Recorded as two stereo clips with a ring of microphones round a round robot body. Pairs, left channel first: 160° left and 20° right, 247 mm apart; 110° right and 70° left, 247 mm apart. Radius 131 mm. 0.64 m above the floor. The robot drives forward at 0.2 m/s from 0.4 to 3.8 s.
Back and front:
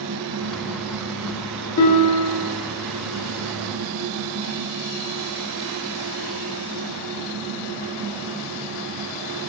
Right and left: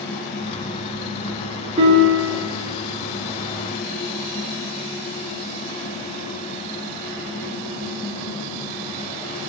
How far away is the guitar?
About 0.6 m.